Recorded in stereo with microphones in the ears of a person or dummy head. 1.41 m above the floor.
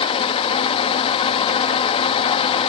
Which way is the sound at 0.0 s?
35° left (ahead or behind).